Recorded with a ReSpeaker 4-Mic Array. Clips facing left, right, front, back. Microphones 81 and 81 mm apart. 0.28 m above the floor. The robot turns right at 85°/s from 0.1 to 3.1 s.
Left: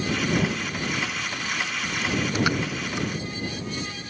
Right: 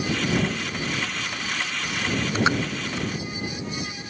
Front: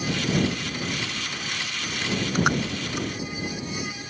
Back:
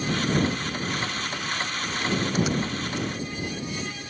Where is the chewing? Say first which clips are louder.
Right 2 dB, front 2 dB; 65° right; by 3.1 s 25° left.